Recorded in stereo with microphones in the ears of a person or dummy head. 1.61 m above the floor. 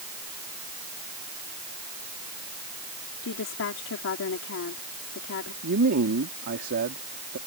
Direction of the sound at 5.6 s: 60° right (ahead or behind).